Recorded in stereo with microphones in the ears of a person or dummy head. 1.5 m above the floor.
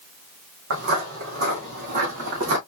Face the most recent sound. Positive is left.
turn(degrees=-35)  # may be behind; listen again after turning